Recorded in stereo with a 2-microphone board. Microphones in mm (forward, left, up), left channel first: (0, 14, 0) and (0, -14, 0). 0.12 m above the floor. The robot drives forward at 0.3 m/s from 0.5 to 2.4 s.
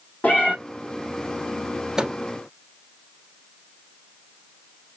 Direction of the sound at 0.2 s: 75° left (ahead or behind).